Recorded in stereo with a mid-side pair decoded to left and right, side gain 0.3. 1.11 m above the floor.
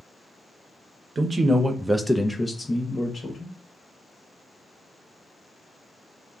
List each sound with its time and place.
1.1 s a man speaking: 60° right, 0.8 m; by 3.5 s 50° left, 1.2 m